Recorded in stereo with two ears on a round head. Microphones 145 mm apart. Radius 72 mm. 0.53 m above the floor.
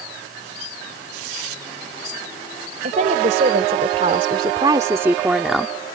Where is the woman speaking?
55° right (ahead or behind); by 5.8 s 5° left (ahead or behind).